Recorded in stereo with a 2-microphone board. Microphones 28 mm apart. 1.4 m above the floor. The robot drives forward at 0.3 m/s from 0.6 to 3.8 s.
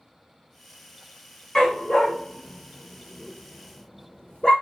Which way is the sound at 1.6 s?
30° left (ahead or behind).